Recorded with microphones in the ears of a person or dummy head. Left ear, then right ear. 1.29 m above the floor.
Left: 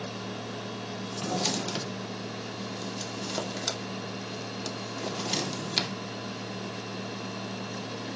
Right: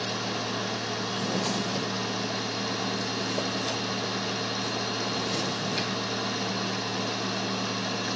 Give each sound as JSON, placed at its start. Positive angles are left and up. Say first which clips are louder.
{"t": 1.1, "sound": "a drawer", "louder": "left 2 dB", "side_deg": 50, "distance_m": 2.0}